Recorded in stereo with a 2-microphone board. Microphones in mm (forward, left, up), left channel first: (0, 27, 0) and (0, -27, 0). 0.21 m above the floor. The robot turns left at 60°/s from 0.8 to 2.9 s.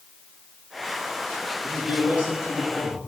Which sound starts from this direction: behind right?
A man speaking, at 1.6 s.